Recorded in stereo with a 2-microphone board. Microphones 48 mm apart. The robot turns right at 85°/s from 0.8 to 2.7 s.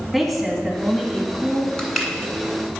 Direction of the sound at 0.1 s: 5° right.